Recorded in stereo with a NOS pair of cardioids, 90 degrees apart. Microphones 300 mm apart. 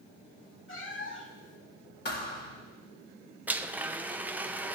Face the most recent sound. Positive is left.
turn(degrees=-5)